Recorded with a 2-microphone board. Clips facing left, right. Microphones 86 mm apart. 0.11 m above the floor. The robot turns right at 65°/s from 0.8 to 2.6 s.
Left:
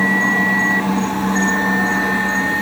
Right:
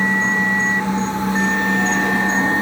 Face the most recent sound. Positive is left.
turn(degrees=-150)